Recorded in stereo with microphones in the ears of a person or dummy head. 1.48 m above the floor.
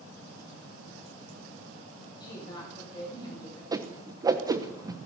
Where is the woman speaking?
25° left (ahead or behind), 7.5 m.